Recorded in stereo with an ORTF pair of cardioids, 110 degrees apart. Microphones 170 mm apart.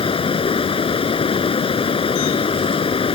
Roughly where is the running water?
Ahead left.